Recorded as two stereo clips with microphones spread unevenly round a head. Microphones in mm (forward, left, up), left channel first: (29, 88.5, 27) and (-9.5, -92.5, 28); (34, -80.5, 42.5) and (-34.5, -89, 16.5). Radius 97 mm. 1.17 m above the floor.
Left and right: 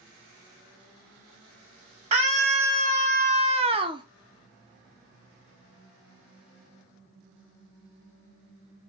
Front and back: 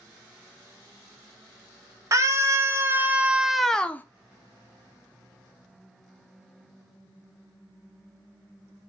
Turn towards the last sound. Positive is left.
turn(degrees=-70)